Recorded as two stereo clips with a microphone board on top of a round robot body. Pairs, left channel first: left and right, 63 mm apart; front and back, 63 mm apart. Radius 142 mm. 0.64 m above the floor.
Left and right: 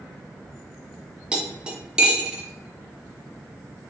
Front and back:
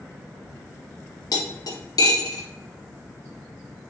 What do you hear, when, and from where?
1.3 s cutlery clinking: 15° right, 1.0 m